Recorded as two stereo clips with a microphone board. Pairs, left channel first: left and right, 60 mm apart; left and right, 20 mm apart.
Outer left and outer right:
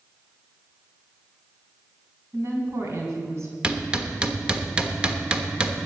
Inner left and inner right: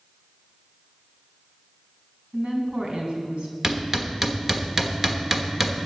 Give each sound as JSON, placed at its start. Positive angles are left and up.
{"t": 2.3, "sound": "a woman speaking", "side_deg": -50, "distance_m": 3.0}
{"t": 3.6, "sound": "hammering", "side_deg": -15, "distance_m": 1.1}